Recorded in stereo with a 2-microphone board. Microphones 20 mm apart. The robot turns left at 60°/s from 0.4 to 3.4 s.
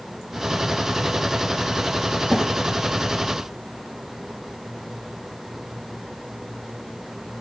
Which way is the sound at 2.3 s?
60° left (ahead or behind).